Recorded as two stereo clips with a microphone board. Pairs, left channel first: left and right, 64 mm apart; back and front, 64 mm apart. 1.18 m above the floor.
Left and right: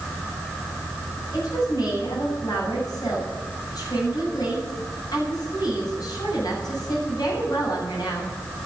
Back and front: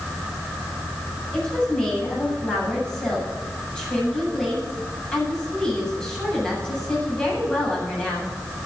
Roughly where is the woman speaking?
Left.